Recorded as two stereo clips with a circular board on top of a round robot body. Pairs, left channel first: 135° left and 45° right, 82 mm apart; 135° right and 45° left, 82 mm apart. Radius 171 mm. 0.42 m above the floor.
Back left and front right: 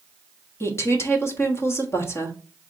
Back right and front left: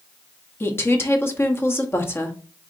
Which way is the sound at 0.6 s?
175° left.